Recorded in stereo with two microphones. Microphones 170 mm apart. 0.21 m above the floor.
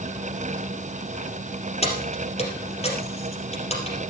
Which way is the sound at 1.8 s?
40° left (ahead or behind).